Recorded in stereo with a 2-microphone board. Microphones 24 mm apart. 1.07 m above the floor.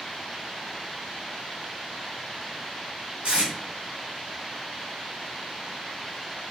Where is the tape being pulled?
60° right (ahead or behind), 1.5 m.